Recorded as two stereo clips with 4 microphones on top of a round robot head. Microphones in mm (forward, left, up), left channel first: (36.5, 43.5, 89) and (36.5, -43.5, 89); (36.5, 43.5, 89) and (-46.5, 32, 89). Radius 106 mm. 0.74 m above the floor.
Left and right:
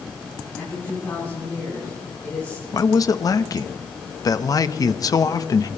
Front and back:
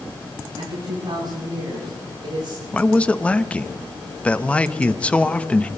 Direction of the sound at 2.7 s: 75° left.